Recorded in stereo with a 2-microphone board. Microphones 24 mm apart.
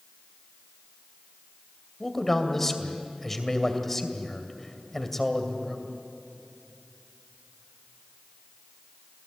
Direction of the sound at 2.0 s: 10° left (ahead or behind).